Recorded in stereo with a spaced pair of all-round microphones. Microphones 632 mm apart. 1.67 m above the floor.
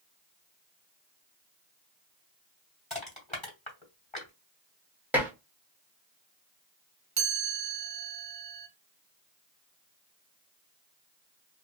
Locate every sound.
2.9 s crushing: 10° left (ahead or behind), 2 m
5.1 s dishes clattering: 5° right (ahead or behind), 1.2 m
7.2 s a chime: 30° right (ahead or behind), 0.8 m